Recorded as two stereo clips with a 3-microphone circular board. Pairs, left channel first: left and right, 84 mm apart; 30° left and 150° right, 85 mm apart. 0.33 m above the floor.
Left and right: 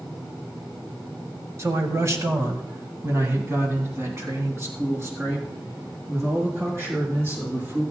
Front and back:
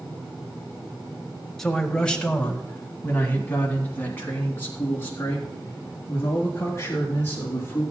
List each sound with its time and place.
1.6 s a man speaking: 55° right, 1.4 m; by 7.8 s 30° right, 5 m